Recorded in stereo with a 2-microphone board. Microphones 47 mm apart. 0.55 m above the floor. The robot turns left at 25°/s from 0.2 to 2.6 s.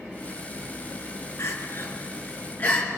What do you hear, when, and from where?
1.4 s crying: 70° left (ahead or behind), 4.5 m; by 2.9 s 40° left (ahead or behind), 4.5 m